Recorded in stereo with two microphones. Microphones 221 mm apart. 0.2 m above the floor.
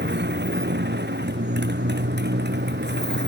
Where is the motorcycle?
55° right (ahead or behind).